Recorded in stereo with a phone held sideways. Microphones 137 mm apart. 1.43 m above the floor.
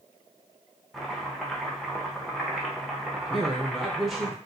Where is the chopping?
Centre (ahead or behind), 0.7 m.